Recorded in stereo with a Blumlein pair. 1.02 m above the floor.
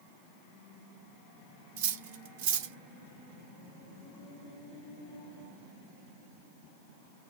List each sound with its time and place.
1.8 s cutlery clinking: 50° right, 0.6 m